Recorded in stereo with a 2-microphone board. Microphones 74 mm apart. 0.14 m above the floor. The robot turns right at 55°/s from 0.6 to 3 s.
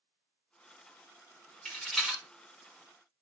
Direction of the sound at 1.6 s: 15° left (ahead or behind).